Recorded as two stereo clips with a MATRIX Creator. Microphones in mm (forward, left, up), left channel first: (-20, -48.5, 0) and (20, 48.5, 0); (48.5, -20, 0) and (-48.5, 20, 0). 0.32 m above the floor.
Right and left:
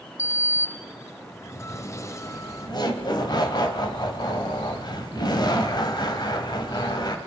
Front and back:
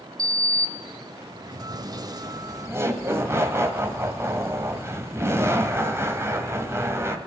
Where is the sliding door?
165° right, 0.6 m.